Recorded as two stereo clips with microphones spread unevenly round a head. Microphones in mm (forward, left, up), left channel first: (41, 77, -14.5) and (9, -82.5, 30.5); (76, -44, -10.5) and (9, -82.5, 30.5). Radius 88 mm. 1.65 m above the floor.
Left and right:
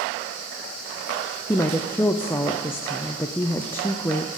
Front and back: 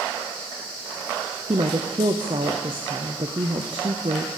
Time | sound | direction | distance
1.5 | a woman speaking | 160° left | 0.5 m